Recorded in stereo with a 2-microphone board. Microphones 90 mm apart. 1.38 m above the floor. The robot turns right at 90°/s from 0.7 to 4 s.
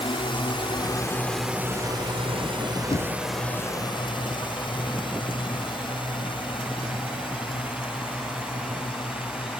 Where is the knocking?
65° left (ahead or behind); by 3.2 s 85° left.